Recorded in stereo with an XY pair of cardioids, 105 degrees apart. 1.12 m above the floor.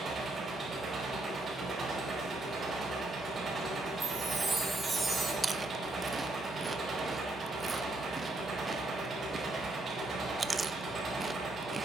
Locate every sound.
0.0 s an engine running: 35° right, 4.5 m
4.0 s a chime: 15° right, 3 m
5.4 s chewing: 25° right, 0.6 m